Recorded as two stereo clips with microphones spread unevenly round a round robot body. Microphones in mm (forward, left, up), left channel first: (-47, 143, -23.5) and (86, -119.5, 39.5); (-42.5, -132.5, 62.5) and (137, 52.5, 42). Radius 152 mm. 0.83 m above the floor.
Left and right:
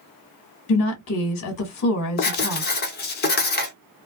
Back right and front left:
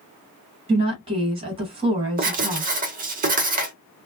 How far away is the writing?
About 0.7 m.